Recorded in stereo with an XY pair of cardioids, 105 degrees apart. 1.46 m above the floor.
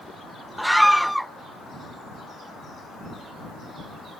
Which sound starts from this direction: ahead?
A scream, at 0.6 s.